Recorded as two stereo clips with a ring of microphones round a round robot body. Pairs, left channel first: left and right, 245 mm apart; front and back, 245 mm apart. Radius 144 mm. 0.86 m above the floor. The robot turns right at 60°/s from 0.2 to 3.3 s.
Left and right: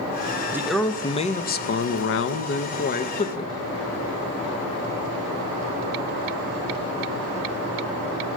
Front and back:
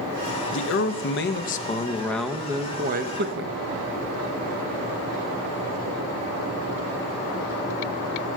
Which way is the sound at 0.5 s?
10° right.